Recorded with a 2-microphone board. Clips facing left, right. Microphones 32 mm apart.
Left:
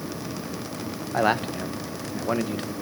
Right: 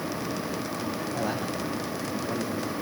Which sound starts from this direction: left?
A man speaking, at 1.1 s.